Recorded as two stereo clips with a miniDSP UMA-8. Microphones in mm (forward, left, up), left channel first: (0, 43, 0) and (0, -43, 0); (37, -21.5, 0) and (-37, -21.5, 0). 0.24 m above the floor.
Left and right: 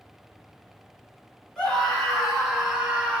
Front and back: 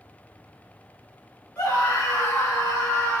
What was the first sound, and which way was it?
A scream, 10° left.